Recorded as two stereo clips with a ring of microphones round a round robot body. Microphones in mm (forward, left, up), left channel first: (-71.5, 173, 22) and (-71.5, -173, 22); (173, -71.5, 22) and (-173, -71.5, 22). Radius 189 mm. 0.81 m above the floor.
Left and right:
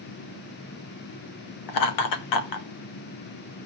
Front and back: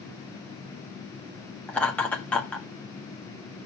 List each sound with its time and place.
1.7 s laughter: 85° left, 1.5 m